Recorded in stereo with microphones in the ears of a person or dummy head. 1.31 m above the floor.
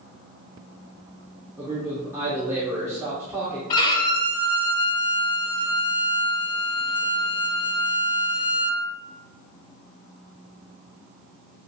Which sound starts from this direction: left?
A violin, at 3.7 s.